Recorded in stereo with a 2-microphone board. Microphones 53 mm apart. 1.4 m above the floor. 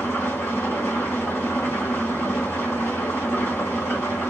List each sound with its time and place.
0.0 s an engine running: 60° left (ahead or behind), 2.5 m